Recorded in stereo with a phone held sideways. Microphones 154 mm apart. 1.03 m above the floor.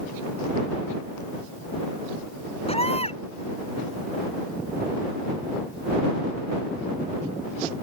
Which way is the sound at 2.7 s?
40° left (ahead or behind).